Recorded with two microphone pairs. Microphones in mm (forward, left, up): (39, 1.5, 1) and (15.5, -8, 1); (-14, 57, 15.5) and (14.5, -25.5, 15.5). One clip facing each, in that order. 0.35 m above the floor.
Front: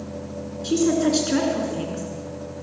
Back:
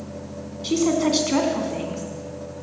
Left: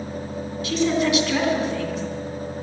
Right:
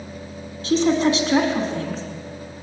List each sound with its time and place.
0.6 s a woman speaking: 125° right, 3 m